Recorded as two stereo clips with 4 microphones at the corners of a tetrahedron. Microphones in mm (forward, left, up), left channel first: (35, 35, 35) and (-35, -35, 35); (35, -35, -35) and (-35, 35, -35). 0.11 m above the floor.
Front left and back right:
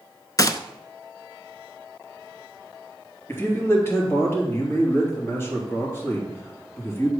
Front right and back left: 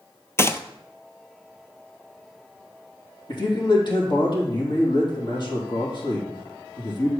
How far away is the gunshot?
About 0.5 m.